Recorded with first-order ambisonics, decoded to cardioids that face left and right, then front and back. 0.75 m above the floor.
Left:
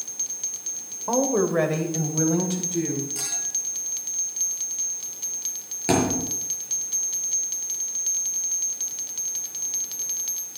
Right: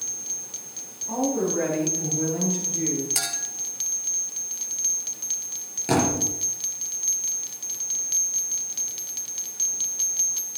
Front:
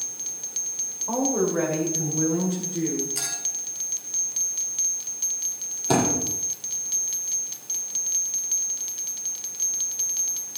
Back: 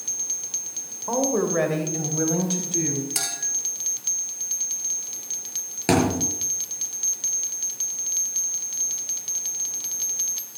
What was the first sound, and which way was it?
A woman speaking, 110° left.